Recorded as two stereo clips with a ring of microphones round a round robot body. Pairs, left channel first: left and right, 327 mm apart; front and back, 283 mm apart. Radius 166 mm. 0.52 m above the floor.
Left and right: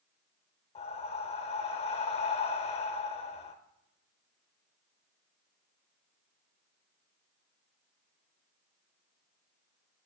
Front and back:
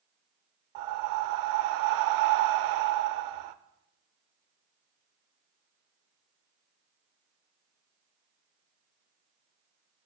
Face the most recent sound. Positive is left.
turn(degrees=165)